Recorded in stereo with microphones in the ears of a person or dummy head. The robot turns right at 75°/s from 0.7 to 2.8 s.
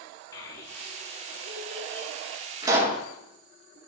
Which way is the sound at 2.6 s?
25° right (ahead or behind).